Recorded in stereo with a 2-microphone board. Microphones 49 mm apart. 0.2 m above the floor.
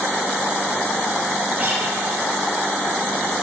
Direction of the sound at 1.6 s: 45° right (ahead or behind).